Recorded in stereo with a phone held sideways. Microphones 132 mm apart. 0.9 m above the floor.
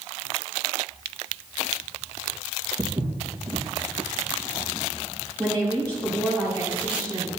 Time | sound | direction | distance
2.8 | footsteps | 15° right (ahead or behind) | 2 m
5.4 | a woman speaking | 10° left (ahead or behind) | 4 m